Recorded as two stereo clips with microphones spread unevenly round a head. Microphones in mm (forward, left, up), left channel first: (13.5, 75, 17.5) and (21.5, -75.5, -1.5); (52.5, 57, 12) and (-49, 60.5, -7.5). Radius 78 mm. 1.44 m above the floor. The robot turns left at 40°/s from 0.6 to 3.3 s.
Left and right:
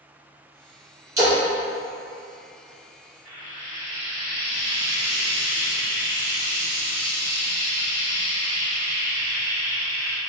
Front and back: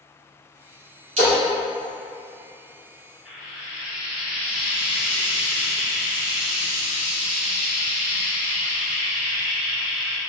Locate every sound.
1.2 s a splash: 160° right, 1.1 m; by 1.4 s 165° right, 1.1 m
3.2 s frying: 90° left, 1.5 m; by 10.2 s 85° left, 1.5 m